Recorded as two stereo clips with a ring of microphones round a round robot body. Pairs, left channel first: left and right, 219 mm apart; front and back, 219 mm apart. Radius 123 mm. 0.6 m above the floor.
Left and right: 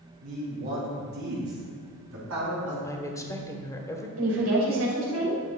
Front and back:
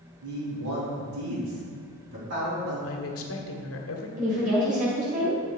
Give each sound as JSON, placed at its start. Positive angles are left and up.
{"t": 0.2, "sound": "a man speaking", "azimuth_deg": -150, "distance_m": 3.5}
{"t": 2.8, "sound": "a woman speaking", "azimuth_deg": 15, "distance_m": 1.5}
{"t": 4.2, "sound": "a woman speaking", "azimuth_deg": -120, "distance_m": 3.5}